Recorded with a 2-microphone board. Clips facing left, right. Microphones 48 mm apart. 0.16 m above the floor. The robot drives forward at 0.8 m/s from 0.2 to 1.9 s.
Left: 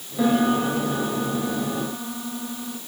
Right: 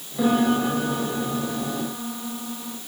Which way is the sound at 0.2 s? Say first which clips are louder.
Even; 5° left (ahead or behind).